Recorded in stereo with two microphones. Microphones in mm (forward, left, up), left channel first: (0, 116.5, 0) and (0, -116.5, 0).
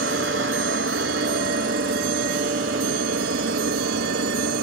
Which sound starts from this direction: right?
A helicopter, at 0.0 s.